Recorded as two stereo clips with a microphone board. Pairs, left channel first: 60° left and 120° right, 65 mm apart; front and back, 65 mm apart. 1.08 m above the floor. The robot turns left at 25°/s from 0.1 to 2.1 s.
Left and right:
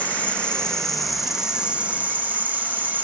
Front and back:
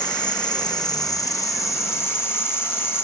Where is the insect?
5° right, 1.0 m; by 3.0 s 55° right, 1.0 m.